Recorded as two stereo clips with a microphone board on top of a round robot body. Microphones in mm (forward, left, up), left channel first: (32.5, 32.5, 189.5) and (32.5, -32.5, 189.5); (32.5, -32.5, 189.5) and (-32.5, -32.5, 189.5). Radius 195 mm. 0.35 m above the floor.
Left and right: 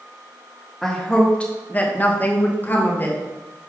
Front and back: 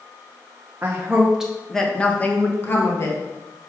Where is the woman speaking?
170° left, 1.5 m; by 3.2 s 35° left, 2 m.